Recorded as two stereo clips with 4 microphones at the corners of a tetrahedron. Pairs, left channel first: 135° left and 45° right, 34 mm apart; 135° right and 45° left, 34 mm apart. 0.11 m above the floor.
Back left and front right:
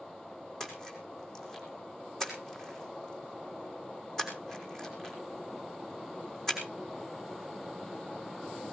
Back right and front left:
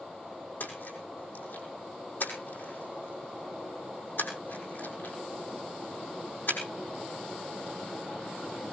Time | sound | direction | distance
0.6 | a splash | 150° right | 5.5 m